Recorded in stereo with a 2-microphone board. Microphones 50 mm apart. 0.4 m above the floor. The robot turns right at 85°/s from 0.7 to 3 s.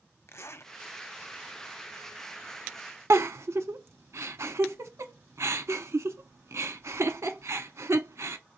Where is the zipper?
65° left (ahead or behind), 0.6 m.